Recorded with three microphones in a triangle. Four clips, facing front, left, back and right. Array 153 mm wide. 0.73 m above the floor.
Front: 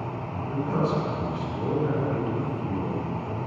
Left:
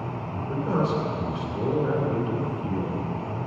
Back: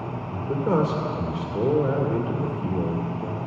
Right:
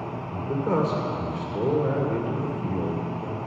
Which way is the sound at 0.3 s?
165° right.